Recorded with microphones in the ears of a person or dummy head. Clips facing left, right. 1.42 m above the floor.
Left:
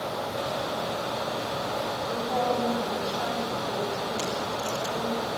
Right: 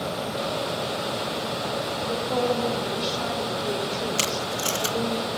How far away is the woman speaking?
About 4 m.